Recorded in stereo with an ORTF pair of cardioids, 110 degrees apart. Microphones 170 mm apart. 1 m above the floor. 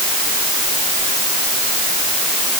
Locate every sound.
Only background noise.